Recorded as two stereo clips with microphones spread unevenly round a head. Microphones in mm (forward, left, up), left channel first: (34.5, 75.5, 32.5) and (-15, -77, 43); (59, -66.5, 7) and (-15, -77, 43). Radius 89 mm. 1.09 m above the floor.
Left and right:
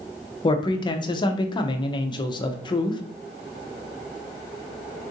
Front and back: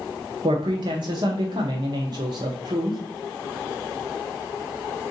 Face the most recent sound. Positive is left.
turn(degrees=130)